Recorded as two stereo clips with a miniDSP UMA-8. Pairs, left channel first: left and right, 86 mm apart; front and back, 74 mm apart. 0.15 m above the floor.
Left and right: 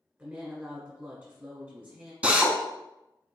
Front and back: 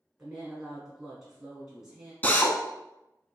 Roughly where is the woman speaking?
Right.